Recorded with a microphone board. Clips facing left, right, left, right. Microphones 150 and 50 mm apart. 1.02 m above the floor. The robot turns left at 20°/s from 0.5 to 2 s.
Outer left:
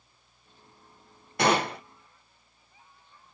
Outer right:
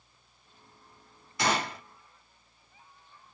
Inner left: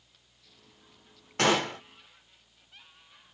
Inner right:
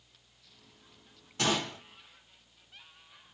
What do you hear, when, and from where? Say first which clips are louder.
1.4 s a gunshot: outer left 5 dB, inner left 6 dB; 60° left (ahead or behind), 0.7 m; by 1.8 s 65° left (ahead or behind), 0.7 m